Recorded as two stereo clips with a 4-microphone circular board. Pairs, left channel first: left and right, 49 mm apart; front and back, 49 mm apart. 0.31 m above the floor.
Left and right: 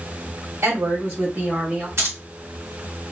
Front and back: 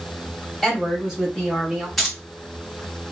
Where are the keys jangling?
90° right, 1.3 m.